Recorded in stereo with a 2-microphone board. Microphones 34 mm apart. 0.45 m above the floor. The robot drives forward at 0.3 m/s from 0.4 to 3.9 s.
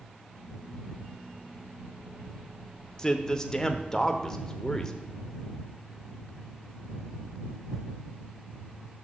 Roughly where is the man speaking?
Centre.